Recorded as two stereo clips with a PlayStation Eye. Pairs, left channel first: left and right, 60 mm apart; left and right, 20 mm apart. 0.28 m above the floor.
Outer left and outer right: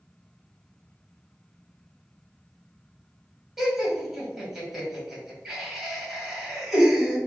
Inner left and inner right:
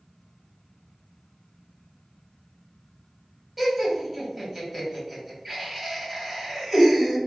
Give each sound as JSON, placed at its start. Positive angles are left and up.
{"t": 3.6, "sound": "laughter", "side_deg": -5, "distance_m": 1.2}